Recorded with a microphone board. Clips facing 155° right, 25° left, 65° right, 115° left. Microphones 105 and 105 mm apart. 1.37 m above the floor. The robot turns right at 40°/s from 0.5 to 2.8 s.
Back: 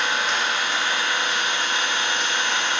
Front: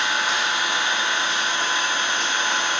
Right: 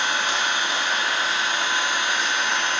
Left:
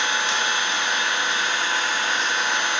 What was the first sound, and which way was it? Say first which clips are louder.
An engine running: even, even; 55° right.